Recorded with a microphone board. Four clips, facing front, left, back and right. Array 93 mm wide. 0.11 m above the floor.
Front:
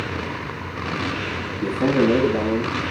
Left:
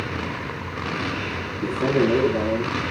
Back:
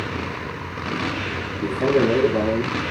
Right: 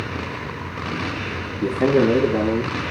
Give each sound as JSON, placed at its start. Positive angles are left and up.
{"t": 1.6, "sound": "a man speaking", "azimuth_deg": -85, "distance_m": 9.0}